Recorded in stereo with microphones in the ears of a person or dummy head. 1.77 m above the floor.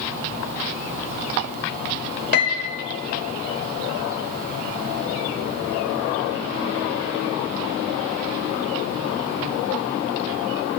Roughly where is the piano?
Left.